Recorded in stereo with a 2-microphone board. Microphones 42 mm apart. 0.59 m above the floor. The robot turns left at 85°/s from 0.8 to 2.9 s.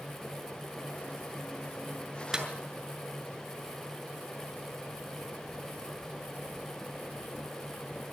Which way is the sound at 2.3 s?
15° right (ahead or behind).